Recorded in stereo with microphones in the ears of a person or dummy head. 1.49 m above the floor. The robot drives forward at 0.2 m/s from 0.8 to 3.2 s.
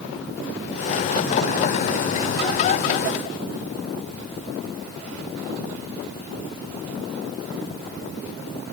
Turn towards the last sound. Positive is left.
No sound to turn to.